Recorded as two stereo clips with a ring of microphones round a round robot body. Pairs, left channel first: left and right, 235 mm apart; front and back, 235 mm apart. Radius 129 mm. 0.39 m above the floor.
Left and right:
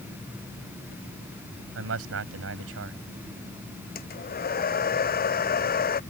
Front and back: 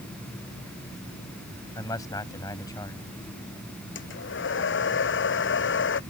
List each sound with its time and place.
1.8 s a man speaking: 75° right
4.0 s a hair dryer: 40° left